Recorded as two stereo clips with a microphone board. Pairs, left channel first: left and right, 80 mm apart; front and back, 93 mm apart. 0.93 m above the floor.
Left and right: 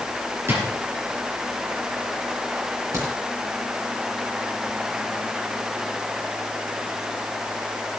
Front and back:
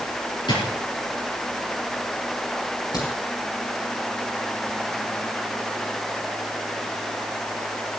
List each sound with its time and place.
0.5 s a drawer: 30° right, 5.5 m
2.9 s a crack: 45° right, 8.5 m